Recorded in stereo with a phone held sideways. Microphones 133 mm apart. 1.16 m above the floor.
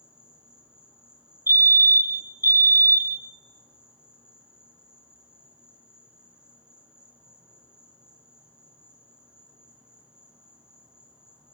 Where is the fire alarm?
20° right (ahead or behind), 1.2 m.